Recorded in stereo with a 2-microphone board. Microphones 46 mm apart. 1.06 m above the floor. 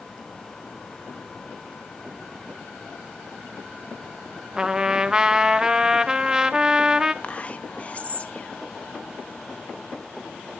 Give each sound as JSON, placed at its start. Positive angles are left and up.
{"t": 4.6, "sound": "a trumpet", "side_deg": -15, "distance_m": 0.8}
{"t": 7.2, "sound": "whispering", "side_deg": 30, "distance_m": 1.4}